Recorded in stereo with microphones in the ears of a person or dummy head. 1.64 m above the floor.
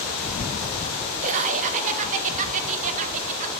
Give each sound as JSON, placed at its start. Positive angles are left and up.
{"t": 1.2, "sound": "laughter", "side_deg": -35, "distance_m": 1.3}